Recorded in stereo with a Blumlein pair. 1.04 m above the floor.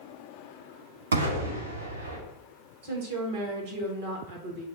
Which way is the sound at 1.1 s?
70° right.